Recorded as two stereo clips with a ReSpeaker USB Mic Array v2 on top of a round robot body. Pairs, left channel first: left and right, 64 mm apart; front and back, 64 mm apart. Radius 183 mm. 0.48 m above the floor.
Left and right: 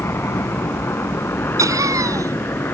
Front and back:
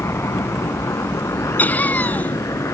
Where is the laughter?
65° right.